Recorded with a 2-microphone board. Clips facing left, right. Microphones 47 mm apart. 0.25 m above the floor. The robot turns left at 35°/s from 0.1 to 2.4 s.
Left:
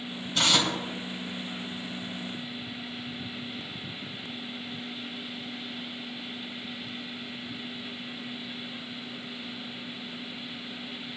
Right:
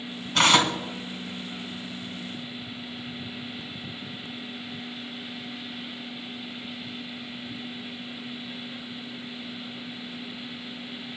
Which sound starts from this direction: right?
Tearing paper, at 0.3 s.